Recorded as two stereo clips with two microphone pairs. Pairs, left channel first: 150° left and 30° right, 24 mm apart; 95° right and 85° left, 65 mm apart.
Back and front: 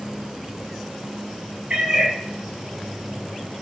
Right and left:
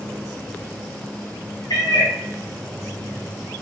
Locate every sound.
1.7 s a cat meowing: 80° right, 3.5 m